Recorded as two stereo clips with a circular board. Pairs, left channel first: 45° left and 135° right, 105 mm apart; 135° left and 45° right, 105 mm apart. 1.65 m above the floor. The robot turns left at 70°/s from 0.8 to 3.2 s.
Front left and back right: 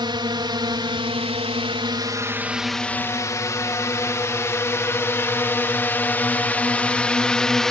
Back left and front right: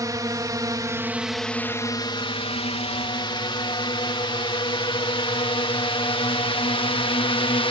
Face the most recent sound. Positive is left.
turn(degrees=130)